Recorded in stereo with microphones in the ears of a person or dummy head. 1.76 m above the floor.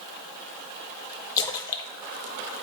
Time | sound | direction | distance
1.4 | a splash | 25° left (ahead or behind) | 0.7 m